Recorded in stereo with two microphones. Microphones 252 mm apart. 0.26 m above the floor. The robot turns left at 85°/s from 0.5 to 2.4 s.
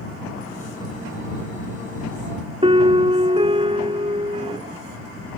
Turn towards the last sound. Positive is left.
turn(degrees=-20)  # may be behind; listen again after turning